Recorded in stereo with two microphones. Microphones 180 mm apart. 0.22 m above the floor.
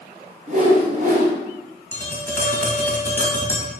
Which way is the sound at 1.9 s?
15° left (ahead or behind).